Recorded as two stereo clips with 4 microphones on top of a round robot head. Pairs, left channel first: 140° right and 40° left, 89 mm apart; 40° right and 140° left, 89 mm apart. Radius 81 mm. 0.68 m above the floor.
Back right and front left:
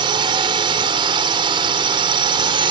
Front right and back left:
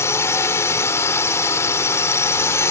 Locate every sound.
0.0 s a drone: 15° left